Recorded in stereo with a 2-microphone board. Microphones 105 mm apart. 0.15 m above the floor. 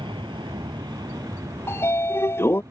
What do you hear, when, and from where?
0.0 s an aircraft: 45° right (ahead or behind); by 2.7 s 30° right (ahead or behind)
1.7 s a sliding door: 20° left (ahead or behind)